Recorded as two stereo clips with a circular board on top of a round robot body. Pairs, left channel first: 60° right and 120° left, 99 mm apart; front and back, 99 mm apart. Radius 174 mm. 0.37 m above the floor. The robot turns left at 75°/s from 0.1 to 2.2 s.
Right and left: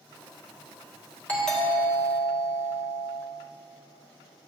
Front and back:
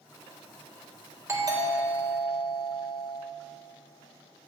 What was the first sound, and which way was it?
A doorbell, 130° right.